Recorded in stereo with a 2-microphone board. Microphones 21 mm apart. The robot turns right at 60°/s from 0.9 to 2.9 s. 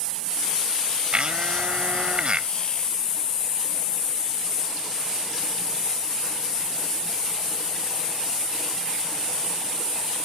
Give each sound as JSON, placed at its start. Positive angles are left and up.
{"t": 1.1, "sound": "a blender", "azimuth_deg": -130}